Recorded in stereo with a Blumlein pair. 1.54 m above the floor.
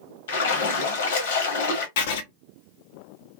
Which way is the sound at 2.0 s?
50° left.